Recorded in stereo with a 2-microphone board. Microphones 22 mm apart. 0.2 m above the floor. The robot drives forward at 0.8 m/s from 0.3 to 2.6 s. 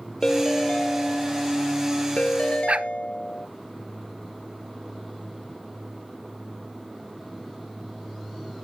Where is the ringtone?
35° left (ahead or behind); by 3.5 s 75° left (ahead or behind).